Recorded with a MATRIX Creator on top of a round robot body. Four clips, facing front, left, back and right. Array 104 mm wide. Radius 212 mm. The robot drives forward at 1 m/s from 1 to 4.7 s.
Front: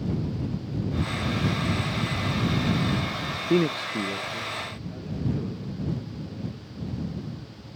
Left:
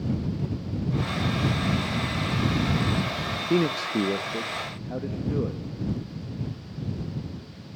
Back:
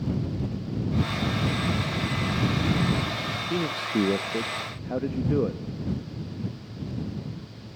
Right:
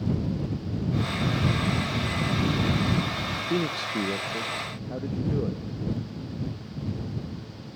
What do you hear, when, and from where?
3.5 s a man speaking: 25° left, 0.6 m; by 5.6 s 170° left, 1.0 m